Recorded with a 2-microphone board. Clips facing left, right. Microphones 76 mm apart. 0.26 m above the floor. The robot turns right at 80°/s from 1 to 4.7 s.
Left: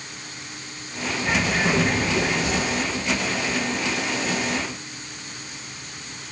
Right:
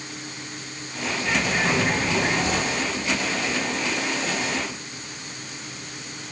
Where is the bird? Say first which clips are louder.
Left 1 dB; 155° left, 0.7 m; by 2.7 s 95° right, 0.7 m.